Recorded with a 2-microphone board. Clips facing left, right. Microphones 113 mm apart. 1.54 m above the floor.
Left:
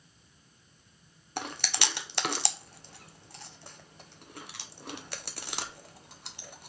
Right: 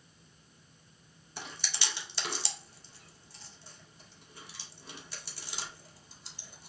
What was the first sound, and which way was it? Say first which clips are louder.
Chewing: left 8 dB; 65° left (ahead or behind).